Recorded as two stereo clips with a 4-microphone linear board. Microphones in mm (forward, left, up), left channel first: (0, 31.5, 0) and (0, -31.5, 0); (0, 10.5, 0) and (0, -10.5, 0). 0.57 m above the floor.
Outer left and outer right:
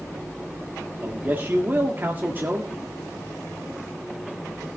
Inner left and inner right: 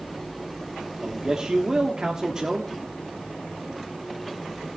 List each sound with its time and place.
1.0 s a man speaking: 30° right (ahead or behind), 1.4 m